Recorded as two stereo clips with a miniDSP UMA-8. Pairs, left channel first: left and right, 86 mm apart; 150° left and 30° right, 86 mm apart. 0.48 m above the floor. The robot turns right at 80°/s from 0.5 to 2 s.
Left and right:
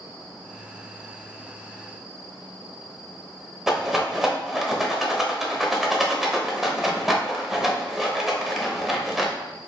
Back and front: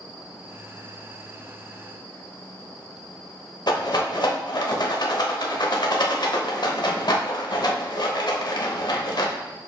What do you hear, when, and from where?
3.7 s a rattle: 175° right, 0.8 m